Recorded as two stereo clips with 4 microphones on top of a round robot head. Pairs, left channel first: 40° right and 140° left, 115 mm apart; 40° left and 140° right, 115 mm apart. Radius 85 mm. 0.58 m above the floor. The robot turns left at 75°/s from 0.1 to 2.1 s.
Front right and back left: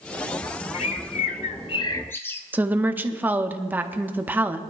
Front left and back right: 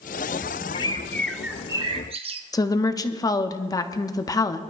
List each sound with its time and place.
0.7 s a bird: 5° right, 0.8 m; by 2.4 s 110° right, 0.8 m
2.5 s a woman speaking: 75° left, 0.9 m